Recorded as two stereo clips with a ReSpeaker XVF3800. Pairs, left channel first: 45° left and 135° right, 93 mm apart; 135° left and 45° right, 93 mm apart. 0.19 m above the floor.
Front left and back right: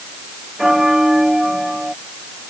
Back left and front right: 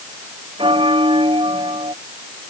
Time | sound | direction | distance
0.6 | a bell | 50° right | ?